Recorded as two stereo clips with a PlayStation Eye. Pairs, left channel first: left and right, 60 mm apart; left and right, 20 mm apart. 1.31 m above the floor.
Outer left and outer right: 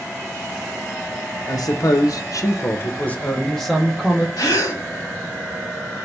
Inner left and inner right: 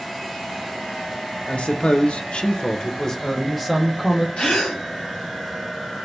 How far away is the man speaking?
About 0.8 m.